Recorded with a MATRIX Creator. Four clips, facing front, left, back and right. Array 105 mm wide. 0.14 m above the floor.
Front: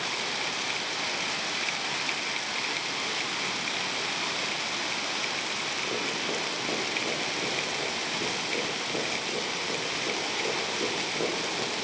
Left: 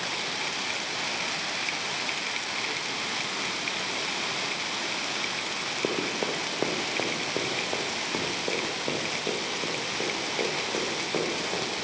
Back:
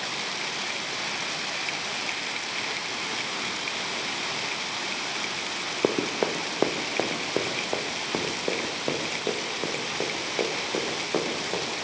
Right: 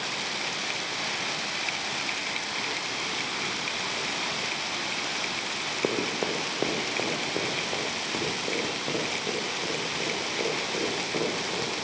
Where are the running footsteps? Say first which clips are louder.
Right 1 dB, back 10 dB; 170° right, 2.5 m; by 11.7 s 165° left, 10 m.